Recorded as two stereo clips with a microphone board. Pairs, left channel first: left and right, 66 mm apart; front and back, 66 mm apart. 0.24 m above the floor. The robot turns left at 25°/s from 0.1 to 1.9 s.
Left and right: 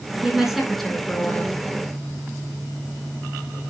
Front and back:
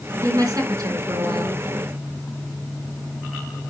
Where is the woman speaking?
165° right, 2.5 m; by 1.6 s 160° left, 2.5 m.